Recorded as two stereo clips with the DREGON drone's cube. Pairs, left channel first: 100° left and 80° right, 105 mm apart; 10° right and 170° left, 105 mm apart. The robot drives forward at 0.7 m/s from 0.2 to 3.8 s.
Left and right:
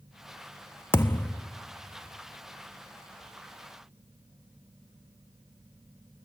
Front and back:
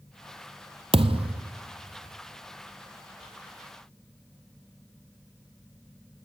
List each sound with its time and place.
0.9 s a thud: 165° left, 0.6 m; by 1.5 s 170° left, 0.9 m